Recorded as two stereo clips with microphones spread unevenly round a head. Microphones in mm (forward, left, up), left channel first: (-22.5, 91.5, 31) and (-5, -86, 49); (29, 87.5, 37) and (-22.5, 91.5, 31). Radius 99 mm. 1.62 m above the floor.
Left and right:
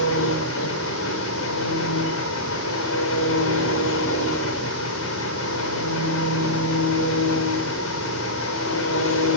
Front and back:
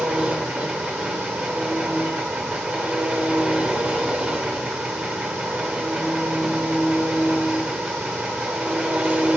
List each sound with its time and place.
0.0 s an engine running: 110° left, 4.5 m